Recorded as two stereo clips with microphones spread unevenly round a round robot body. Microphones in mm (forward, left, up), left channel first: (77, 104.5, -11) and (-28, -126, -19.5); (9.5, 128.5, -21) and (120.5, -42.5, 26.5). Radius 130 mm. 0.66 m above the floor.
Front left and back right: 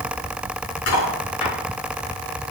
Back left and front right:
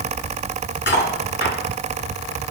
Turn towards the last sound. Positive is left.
turn(degrees=90)